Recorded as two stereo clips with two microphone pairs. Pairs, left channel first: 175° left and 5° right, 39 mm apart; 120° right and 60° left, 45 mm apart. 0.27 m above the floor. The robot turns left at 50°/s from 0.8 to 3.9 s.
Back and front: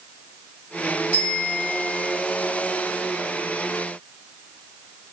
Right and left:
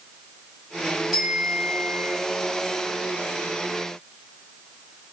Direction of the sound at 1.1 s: 150° left.